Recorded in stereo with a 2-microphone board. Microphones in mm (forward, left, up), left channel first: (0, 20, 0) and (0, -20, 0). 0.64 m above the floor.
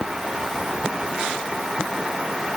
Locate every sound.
Only background noise.